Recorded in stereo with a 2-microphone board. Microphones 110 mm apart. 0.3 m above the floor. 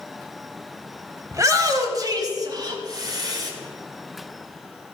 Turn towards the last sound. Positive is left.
turn(degrees=-40)  # may be behind; listen again after turning